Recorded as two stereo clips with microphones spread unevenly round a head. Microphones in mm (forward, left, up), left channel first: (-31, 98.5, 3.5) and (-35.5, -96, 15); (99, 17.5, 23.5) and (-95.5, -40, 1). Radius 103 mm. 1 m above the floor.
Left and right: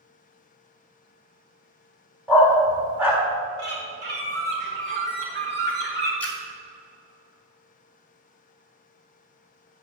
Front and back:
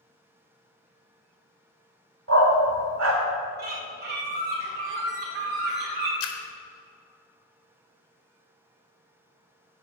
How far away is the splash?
About 1.2 m.